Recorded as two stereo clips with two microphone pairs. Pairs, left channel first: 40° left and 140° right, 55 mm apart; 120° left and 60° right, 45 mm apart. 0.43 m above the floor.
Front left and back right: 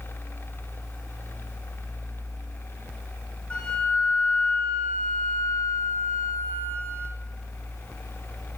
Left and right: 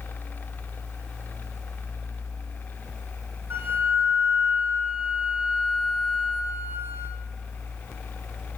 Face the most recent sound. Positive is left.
turn(degrees=-25)